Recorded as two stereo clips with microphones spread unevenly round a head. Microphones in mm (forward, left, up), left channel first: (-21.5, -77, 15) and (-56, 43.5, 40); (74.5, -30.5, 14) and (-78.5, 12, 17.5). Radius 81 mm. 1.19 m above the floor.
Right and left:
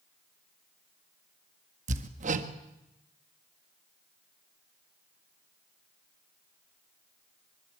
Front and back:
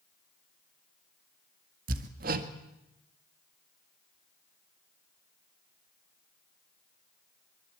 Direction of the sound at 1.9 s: 125° left.